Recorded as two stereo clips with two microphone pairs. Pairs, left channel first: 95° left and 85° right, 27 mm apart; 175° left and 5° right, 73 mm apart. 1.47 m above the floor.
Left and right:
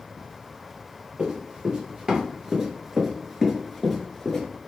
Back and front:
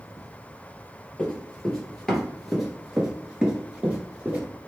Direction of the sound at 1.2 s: 105° right.